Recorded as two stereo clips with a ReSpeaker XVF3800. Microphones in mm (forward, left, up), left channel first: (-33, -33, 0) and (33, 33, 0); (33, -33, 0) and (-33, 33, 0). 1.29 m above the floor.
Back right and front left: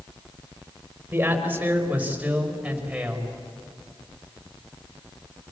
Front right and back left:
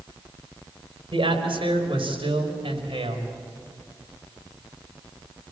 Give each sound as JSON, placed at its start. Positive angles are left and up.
{"t": 1.1, "sound": "a man speaking", "azimuth_deg": 115, "distance_m": 5.0}